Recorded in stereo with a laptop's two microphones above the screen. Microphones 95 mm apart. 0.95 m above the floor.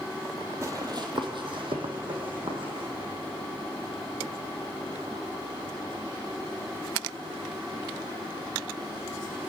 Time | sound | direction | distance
0.6 | running footsteps | 30° right (ahead or behind) | 1.4 m